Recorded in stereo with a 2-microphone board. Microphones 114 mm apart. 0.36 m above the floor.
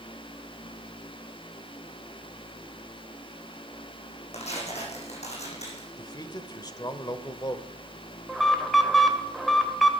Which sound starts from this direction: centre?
An alarm, at 8.3 s.